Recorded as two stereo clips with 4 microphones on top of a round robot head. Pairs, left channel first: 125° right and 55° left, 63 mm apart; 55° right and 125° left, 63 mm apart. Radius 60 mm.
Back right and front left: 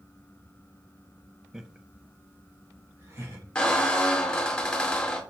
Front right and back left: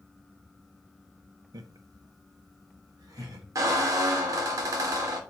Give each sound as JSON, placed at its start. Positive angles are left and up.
{"t": 1.5, "sound": "laughter", "azimuth_deg": 135, "distance_m": 0.6}
{"t": 3.5, "sound": "a squeak", "azimuth_deg": 160, "distance_m": 0.9}